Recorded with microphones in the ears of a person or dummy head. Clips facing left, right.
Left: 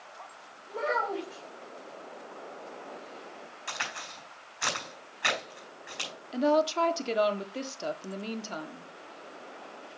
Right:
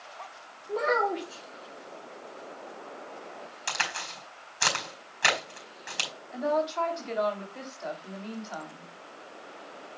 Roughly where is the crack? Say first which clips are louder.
Right 5 dB; right.